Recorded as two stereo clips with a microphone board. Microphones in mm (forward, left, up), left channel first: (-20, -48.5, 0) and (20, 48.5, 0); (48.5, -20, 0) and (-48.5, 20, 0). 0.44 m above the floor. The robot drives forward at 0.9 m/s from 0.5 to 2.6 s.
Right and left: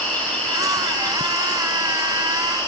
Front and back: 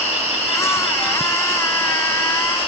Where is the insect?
40° right, 7.5 m; by 2.7 s 50° right, 6.5 m.